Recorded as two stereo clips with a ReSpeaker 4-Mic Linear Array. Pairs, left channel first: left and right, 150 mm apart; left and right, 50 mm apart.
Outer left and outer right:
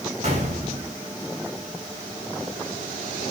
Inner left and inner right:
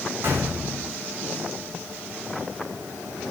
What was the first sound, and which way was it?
A gunshot, 50° right (ahead or behind).